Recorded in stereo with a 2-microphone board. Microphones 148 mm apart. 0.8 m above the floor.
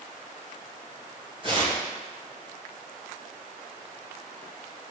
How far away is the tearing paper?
About 2.5 m.